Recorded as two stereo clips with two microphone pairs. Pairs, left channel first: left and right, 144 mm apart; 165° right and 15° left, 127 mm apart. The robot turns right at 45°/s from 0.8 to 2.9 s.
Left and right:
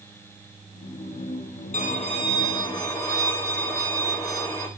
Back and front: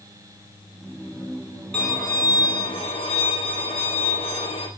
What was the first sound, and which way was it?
A violin, 110° left.